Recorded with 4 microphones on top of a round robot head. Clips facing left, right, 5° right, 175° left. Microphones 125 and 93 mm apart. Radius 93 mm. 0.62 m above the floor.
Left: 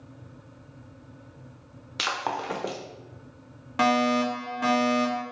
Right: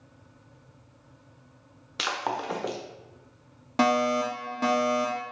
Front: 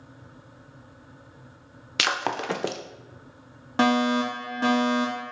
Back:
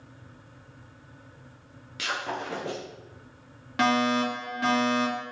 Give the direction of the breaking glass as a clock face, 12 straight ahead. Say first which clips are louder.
Even, front 5 dB; 12 o'clock.